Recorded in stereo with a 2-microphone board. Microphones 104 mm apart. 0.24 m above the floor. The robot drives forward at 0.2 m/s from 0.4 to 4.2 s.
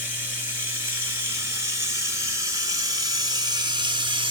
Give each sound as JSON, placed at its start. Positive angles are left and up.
{"t": 0.0, "sound": "running water", "side_deg": -20, "distance_m": 1.1}